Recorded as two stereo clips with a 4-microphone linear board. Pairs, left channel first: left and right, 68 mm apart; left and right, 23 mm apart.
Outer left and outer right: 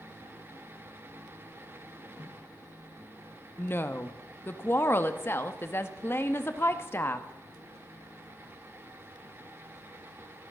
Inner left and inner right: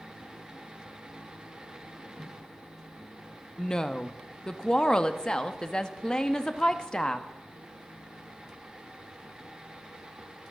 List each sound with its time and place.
3.6 s a woman speaking: 35° left (ahead or behind), 1.0 m